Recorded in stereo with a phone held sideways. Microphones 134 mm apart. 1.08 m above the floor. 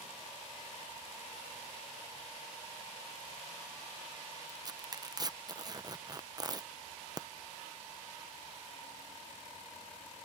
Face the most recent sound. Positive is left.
turn(degrees=-30)  # may be behind; listen again after turning